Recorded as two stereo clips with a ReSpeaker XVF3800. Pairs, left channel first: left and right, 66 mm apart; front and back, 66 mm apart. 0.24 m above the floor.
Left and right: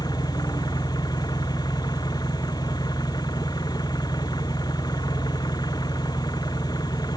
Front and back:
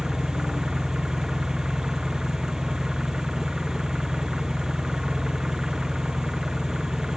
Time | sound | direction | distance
0.0 | an engine running | 100° left | ?